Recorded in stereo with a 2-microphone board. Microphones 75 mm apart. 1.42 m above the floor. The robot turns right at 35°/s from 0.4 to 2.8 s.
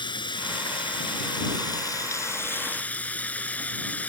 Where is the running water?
80° left; by 4.1 s 160° left.